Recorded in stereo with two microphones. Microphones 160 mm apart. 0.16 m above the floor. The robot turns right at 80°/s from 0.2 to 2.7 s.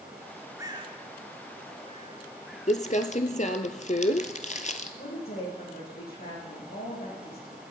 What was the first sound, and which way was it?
A bird, 15° right (ahead or behind).